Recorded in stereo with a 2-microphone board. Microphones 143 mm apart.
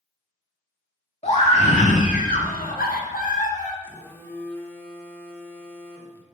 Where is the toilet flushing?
No toilet flushing in this recording.